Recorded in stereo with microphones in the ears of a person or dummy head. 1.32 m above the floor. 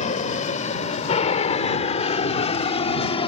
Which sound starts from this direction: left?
An aircraft, at 0.0 s.